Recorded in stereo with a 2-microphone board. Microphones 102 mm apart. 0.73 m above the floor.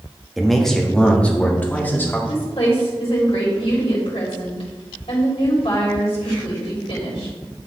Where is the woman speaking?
70° left (ahead or behind), 3.5 m.